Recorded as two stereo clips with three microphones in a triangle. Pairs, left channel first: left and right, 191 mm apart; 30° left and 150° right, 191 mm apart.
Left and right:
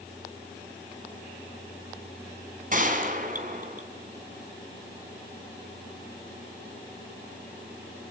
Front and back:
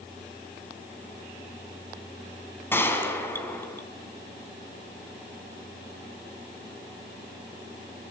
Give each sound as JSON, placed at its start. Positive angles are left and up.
{"t": 2.7, "sound": "a gunshot", "azimuth_deg": -50, "distance_m": 3.5}